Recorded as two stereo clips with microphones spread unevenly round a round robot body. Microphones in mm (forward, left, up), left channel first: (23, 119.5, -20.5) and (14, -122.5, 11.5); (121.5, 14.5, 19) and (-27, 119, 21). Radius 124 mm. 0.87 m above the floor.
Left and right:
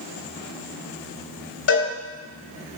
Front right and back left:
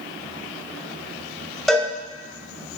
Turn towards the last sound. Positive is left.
turn(degrees=55)